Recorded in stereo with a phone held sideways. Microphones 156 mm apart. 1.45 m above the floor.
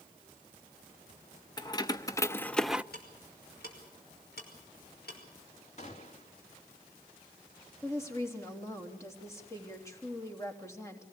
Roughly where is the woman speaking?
Centre.